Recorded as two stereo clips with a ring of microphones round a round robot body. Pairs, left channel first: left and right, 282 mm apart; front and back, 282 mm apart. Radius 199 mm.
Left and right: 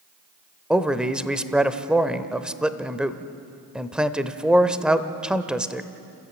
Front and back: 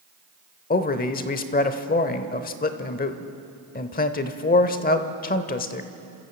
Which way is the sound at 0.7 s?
5° right.